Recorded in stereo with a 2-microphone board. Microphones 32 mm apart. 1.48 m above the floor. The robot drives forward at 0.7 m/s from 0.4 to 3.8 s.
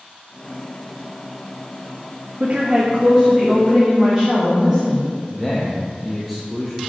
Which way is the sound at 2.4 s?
50° right (ahead or behind).